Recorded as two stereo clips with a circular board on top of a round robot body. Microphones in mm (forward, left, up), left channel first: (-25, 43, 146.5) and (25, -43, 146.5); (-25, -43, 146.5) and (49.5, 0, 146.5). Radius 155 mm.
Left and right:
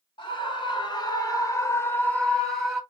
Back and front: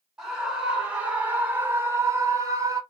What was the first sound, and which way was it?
A scream, 115° left.